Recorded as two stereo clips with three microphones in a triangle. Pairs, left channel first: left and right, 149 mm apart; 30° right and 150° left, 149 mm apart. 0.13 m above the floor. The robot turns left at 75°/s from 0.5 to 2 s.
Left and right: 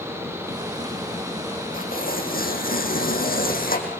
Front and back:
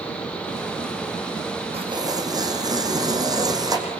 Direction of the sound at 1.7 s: 105° left.